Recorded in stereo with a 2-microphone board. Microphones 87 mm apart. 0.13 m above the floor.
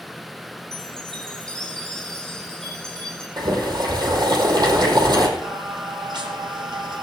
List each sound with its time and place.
0.7 s a chime: 10° left (ahead or behind), 4.5 m
3.4 s boiling: 55° right (ahead or behind), 4 m
5.4 s singing: 60° right (ahead or behind), 3 m